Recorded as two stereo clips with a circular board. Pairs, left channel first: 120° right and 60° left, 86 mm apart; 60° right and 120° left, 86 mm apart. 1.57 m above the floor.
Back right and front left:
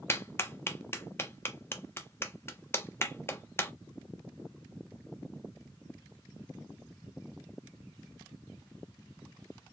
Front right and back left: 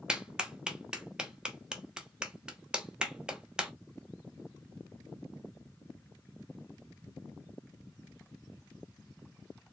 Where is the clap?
165° right, 0.7 m.